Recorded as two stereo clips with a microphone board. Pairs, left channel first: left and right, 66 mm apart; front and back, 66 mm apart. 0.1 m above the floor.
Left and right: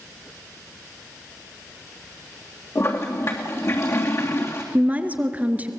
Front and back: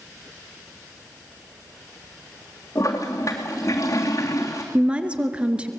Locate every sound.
2.8 s a toilet flushing: 40° left, 3 m
4.7 s a woman speaking: 125° right, 1.3 m